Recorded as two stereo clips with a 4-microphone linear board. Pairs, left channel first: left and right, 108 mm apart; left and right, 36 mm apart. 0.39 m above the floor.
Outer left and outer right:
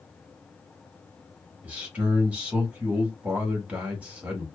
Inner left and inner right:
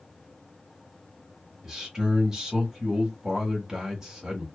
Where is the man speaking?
10° right (ahead or behind), 1.2 m.